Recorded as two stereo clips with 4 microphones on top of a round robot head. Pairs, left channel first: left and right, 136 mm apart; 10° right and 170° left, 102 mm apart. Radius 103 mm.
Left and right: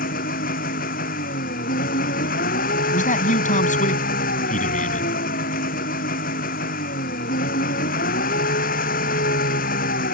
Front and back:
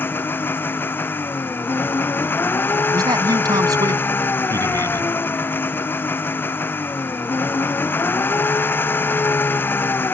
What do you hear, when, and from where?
0.0 s an engine running: 60° left
2.9 s a man speaking: 120° left